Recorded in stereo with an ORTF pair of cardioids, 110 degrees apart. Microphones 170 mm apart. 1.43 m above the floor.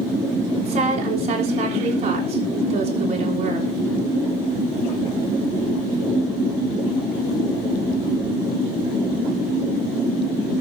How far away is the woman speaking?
About 6 m.